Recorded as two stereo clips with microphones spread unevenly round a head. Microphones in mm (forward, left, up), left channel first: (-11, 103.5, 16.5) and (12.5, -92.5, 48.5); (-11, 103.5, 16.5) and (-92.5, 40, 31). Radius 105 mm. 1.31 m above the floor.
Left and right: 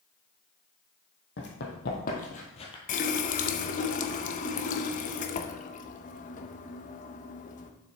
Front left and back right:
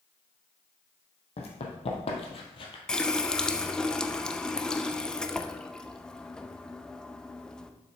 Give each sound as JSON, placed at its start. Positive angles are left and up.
{"t": 1.4, "sound": "running footsteps", "azimuth_deg": 60, "distance_m": 2.5}
{"t": 2.9, "sound": "a running tap", "azimuth_deg": 130, "distance_m": 0.5}